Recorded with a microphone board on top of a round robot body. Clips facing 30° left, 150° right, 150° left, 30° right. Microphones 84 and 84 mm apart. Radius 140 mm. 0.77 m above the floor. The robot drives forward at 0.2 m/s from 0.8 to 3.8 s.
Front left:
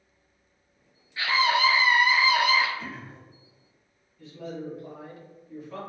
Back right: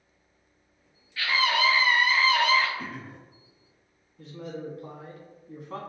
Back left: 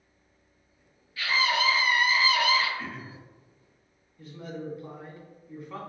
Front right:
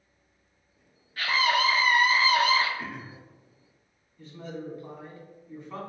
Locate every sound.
1.2 s a scream: 30° right, 1.1 m; by 2.7 s 45° right, 0.9 m
2.8 s throat clearing: 105° right, 0.6 m; by 3.2 s 115° right, 0.7 m
4.2 s a man speaking: 130° right, 1.5 m